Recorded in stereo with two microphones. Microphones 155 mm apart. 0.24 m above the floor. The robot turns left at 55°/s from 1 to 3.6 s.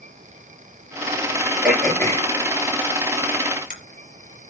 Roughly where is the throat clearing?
Centre.